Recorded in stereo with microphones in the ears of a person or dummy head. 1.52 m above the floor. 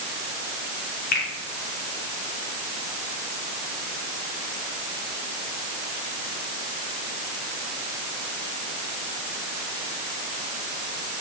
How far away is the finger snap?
About 4.5 m.